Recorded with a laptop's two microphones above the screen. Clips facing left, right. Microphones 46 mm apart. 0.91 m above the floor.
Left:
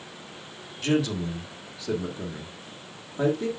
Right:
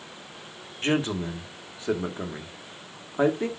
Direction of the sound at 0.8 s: 30° right (ahead or behind).